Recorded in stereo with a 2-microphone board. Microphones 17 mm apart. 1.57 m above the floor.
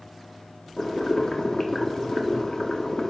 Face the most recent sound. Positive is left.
turn(degrees=40)  # may be behind; listen again after turning